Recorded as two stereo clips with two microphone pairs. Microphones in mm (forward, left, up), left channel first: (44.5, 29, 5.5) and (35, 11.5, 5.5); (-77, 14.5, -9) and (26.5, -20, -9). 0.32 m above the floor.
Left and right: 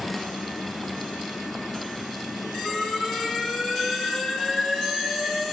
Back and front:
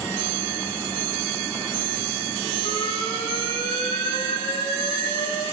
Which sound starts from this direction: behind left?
An alarm, at 2.6 s.